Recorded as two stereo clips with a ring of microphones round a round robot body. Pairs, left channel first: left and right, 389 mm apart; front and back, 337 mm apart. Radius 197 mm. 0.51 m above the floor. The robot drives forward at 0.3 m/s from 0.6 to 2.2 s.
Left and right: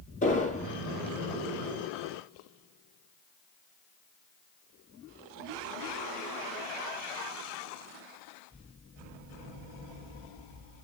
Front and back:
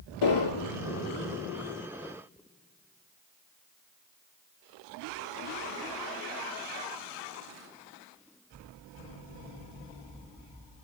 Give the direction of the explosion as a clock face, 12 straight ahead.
11 o'clock.